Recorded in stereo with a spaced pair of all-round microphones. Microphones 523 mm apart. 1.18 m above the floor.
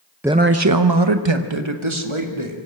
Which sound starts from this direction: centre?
A man speaking, at 0.2 s.